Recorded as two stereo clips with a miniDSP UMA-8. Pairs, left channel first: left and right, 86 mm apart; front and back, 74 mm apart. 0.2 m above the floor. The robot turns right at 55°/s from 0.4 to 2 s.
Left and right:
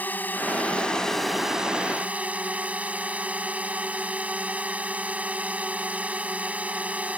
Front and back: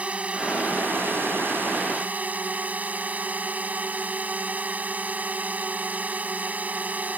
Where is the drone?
130° left; by 7.2 s 140° right.